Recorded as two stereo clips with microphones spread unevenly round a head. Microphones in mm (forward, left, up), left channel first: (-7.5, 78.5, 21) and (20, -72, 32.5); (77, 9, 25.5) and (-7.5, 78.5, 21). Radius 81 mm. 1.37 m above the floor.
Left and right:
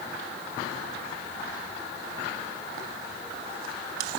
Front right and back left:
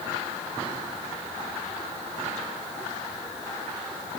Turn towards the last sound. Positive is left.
No sound to turn to.